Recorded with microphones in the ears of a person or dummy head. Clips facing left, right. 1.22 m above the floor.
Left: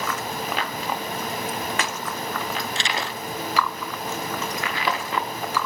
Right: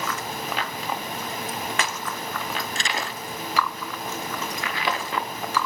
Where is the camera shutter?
40° right (ahead or behind).